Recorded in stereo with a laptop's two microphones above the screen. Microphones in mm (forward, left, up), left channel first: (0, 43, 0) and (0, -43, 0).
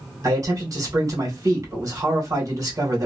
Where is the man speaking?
40° right (ahead or behind), 1.4 m.